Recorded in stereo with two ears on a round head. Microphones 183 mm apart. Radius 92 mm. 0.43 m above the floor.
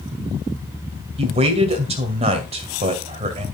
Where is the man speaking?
30° right (ahead or behind), 2.0 m.